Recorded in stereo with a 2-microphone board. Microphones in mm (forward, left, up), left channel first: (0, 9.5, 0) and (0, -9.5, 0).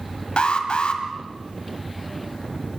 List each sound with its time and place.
0.4 s an alarm: 60° left (ahead or behind), 1.9 m